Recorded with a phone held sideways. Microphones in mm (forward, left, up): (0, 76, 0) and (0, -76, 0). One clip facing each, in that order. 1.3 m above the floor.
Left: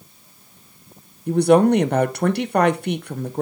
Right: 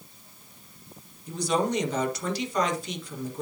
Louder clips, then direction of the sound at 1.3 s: Left 12 dB; 60° left (ahead or behind).